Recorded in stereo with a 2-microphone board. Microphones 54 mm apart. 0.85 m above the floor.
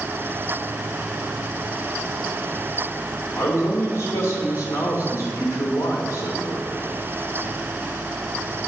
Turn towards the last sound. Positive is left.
turn(degrees=70)  # may be behind; listen again after turning